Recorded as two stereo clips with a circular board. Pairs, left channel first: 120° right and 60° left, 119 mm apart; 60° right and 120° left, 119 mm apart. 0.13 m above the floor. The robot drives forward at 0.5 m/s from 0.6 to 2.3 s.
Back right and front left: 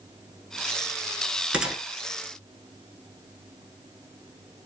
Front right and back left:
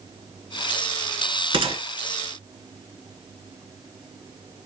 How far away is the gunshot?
About 0.7 m.